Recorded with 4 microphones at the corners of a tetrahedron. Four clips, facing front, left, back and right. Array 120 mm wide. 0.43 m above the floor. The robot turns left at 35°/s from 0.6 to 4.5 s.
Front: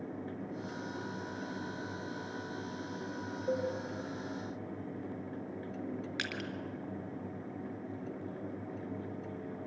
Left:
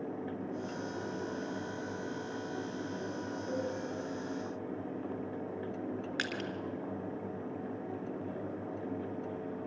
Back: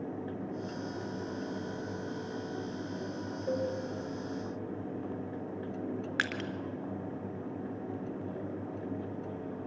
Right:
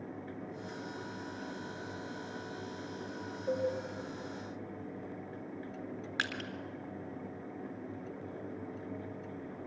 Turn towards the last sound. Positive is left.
turn(degrees=-175)